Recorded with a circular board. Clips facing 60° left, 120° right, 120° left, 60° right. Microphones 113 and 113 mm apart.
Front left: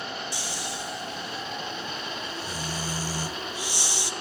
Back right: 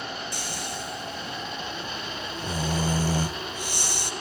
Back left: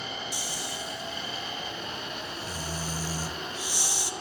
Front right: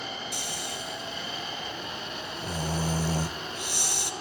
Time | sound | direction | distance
0.3 | snoring | 85° right | 0.7 m